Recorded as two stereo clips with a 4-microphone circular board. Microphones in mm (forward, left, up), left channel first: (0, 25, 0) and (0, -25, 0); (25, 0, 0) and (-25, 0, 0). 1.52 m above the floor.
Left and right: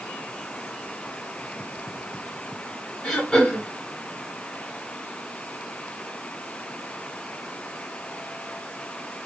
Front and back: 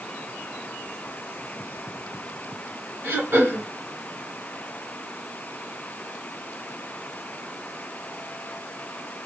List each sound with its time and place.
3.0 s throat clearing: 170° left, 2.5 m